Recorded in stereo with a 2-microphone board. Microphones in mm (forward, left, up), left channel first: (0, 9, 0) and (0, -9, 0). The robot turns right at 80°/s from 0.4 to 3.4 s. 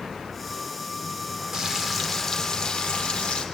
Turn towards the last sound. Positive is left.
turn(degrees=105)